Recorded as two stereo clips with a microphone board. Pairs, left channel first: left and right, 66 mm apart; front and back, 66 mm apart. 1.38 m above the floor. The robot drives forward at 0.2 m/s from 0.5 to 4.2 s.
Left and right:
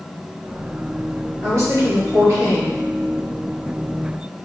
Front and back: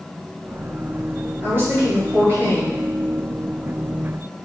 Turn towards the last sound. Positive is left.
turn(degrees=-140)